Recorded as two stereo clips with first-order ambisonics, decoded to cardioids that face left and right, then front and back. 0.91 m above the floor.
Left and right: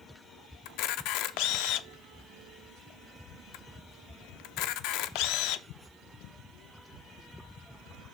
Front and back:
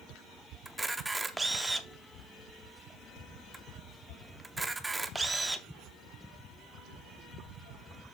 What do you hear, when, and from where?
0.7 s a camera shutter: 100° left, 0.6 m